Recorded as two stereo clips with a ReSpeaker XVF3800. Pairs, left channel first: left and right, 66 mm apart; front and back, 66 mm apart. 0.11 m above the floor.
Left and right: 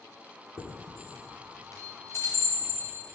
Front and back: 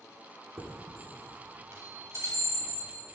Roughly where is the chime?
Behind left.